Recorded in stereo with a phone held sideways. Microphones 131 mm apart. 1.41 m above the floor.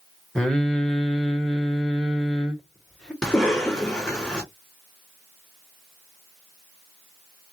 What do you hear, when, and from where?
0.3 s singing: 5° left (ahead or behind), 1.8 m
3.2 s a cough: 5° left (ahead or behind), 2.5 m